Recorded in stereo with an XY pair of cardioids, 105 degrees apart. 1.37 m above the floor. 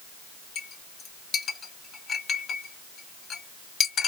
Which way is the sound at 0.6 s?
50° left.